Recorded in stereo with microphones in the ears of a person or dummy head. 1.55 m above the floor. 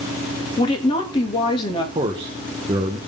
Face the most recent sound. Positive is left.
turn(degrees=-25)  # may be behind; listen again after turning